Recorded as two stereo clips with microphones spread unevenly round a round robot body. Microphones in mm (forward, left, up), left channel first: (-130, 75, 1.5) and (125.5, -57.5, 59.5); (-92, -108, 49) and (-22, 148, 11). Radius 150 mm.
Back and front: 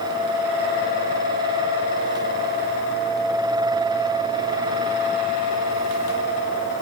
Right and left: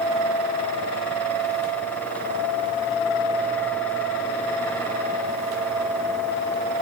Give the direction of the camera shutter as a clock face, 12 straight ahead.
No camera shutter in this recording.